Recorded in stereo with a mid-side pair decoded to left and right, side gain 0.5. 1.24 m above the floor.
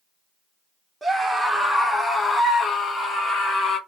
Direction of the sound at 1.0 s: 5° right.